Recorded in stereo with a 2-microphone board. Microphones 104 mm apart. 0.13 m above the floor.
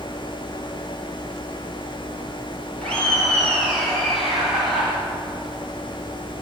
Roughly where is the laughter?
Centre.